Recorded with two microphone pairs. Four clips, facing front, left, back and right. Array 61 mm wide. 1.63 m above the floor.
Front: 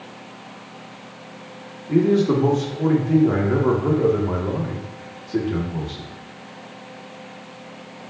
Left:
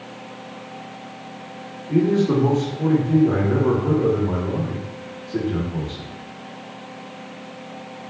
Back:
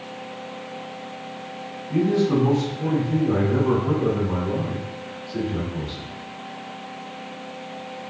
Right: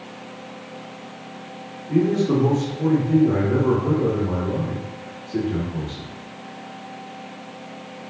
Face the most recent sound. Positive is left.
turn(degrees=5)